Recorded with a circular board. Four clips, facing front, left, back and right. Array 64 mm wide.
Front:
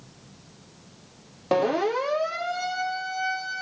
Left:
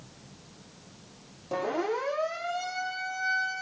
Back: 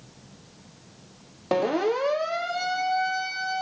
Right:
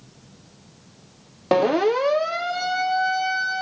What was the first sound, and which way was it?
A siren, 90° right.